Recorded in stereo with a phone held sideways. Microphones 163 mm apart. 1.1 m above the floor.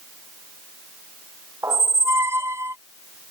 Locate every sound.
1.6 s a squeak: 15° right (ahead or behind)